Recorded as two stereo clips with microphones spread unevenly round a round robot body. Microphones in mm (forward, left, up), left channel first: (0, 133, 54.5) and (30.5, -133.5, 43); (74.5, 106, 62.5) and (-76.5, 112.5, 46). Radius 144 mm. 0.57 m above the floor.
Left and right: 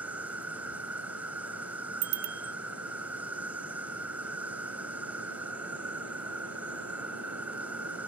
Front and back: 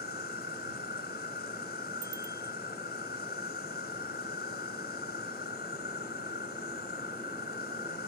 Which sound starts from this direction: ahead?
An insect, at 0.0 s.